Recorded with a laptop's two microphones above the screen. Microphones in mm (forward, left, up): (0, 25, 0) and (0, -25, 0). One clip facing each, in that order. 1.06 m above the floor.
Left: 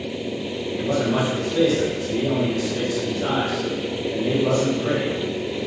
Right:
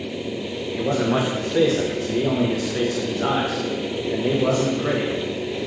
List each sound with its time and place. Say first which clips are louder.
0.8 s a man speaking: right 1 dB; 50° right (ahead or behind), 0.6 m